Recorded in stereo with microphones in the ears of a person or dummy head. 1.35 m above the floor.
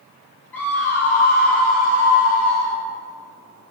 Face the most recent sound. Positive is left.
turn(degrees=10)  # may be behind; listen again after turning